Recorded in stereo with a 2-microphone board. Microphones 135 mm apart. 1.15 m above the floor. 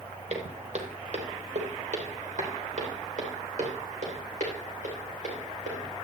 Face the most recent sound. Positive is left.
turn(degrees=-65)  # may be behind; listen again after turning